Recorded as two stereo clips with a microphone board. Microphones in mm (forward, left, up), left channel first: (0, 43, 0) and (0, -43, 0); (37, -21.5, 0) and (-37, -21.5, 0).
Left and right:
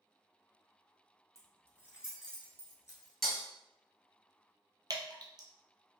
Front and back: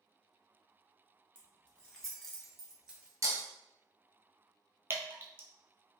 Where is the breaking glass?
Straight behind, 1.0 m.